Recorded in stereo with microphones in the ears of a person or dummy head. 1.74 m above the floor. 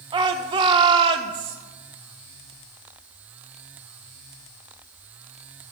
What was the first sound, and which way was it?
A shout, 25° right (ahead or behind).